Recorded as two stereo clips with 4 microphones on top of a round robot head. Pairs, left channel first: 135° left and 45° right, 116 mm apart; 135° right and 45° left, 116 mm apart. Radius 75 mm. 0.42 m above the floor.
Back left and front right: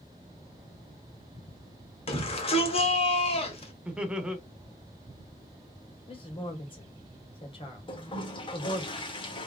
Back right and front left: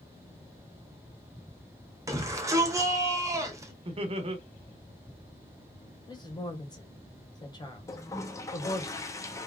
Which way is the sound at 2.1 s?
105° left.